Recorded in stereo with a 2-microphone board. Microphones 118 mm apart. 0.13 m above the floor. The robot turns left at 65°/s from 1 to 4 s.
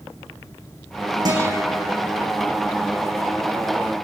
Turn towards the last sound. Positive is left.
turn(degrees=35)